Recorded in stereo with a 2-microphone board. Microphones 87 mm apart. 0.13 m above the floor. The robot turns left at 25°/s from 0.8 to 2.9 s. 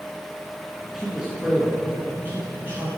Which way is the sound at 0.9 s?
15° right.